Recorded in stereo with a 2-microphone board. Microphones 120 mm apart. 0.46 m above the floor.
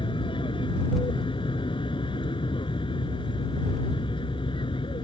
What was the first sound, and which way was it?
An aircraft, 45° left (ahead or behind).